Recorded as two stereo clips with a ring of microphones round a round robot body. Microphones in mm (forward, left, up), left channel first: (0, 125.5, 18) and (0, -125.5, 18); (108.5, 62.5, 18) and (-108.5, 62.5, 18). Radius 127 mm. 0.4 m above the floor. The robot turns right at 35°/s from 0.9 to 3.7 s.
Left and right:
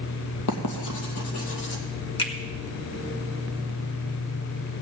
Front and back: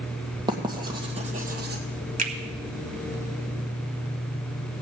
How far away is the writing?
About 2 m.